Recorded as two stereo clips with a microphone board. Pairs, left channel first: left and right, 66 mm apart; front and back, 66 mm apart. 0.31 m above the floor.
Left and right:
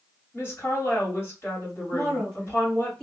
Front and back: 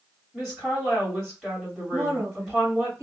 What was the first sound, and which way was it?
A woman speaking, 75° left.